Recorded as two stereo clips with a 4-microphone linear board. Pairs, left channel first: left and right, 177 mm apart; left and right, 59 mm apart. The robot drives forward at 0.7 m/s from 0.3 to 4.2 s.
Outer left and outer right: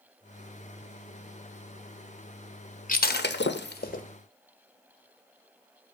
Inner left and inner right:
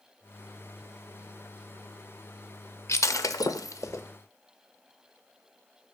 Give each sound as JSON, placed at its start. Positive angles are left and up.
{"t": 2.9, "sound": "breaking glass", "side_deg": 50, "distance_m": 0.6}